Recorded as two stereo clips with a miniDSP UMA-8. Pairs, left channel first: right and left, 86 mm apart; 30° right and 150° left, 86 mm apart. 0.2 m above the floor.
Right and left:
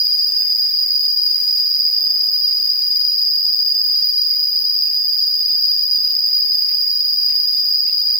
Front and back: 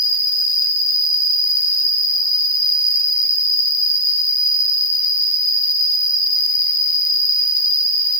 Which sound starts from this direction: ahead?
An insect, at 0.0 s.